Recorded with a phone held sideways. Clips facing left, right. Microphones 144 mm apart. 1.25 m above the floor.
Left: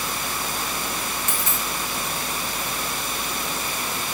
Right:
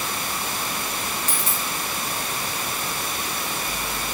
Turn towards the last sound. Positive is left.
turn(degrees=-35)  # may be behind; listen again after turning